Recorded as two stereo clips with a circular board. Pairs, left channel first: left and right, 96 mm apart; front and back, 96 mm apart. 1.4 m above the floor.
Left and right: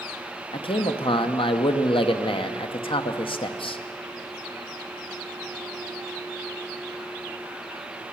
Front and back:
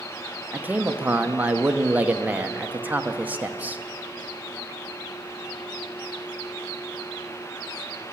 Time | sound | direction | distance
0.5 | a man speaking | 110° left | 0.8 m